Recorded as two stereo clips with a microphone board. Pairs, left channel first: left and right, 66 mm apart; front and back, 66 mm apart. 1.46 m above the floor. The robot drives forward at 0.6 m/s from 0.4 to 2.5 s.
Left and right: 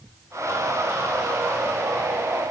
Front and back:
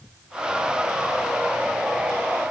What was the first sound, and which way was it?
Only background noise.